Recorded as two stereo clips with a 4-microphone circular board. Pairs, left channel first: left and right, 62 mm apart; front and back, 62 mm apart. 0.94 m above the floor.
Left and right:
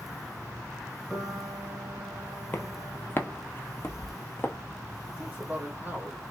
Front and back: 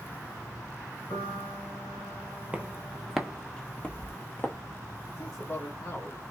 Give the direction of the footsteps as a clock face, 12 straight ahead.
8 o'clock.